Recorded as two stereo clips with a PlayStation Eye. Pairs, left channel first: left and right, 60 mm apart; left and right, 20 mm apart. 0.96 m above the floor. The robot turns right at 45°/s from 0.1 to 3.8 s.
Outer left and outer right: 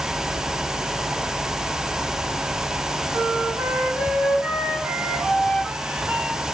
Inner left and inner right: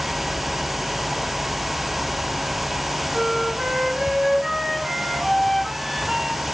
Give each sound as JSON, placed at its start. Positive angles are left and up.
{"t": 3.1, "sound": "a flute", "azimuth_deg": -55, "distance_m": 3.0}